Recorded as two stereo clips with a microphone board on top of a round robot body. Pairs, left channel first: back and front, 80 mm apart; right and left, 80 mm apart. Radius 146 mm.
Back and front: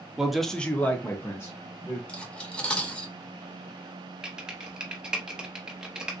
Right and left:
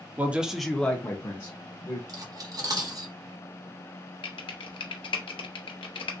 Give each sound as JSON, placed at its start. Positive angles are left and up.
{"t": 0.2, "sound": "a man speaking", "azimuth_deg": 75, "distance_m": 0.8}
{"t": 2.1, "sound": "cutlery clinking", "azimuth_deg": 110, "distance_m": 1.0}
{"t": 4.2, "sound": "typing on a keyboard", "azimuth_deg": -80, "distance_m": 0.6}